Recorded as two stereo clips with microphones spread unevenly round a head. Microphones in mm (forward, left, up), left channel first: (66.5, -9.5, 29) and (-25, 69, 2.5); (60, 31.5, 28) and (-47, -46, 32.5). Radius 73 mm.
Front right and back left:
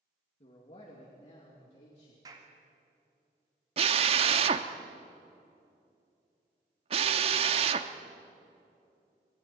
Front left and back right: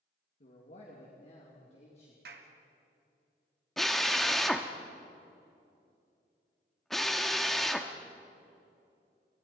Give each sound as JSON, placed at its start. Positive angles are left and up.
{"t": 0.4, "sound": "a man speaking", "azimuth_deg": 0, "distance_m": 2.5}
{"t": 2.2, "sound": "a clap", "azimuth_deg": -155, "distance_m": 2.0}
{"t": 3.8, "sound": "a drill", "azimuth_deg": 125, "distance_m": 0.9}